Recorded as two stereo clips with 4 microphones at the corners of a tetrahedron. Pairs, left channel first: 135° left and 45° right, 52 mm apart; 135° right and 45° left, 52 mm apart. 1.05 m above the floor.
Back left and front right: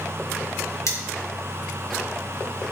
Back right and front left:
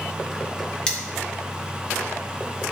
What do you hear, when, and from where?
0.9 s cutlery clinking: 150° left, 1.7 m